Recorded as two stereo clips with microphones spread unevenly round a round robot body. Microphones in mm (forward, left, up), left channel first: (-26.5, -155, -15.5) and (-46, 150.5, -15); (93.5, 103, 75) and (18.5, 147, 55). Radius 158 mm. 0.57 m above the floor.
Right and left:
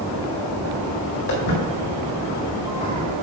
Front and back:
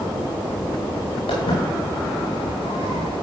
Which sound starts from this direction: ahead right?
Footsteps, at 1.3 s.